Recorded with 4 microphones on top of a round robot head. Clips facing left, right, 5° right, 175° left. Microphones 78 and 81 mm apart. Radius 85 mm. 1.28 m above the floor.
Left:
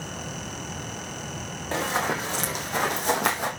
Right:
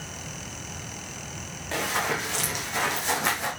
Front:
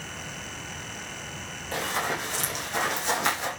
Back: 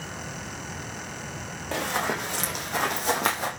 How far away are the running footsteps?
About 4.5 m.